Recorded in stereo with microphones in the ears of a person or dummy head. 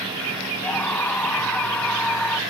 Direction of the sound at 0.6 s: 10° left (ahead or behind).